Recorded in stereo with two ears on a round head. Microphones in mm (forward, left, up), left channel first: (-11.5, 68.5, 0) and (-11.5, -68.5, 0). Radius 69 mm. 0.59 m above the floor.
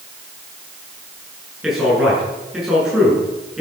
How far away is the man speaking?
About 7 m.